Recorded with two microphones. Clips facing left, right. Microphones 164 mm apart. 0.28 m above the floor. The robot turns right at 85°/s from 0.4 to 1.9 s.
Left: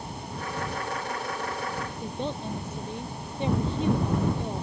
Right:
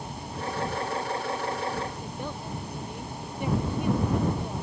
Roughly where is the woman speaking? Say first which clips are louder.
Left 4 dB; left.